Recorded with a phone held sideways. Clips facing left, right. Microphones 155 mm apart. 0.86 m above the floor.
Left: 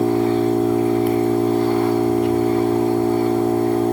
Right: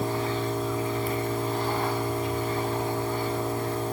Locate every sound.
0.0 s an engine running: 70° left (ahead or behind), 2.5 m